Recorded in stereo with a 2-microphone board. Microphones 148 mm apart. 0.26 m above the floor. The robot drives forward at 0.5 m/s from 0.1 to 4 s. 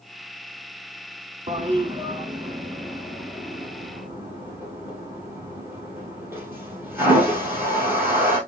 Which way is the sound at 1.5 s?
45° right (ahead or behind).